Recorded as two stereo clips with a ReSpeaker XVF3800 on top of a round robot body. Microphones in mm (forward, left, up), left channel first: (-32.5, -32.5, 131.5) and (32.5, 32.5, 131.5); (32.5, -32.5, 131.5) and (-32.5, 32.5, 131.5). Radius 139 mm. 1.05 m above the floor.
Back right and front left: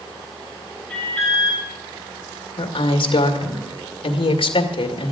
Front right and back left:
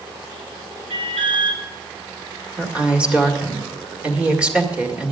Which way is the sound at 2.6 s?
145° right.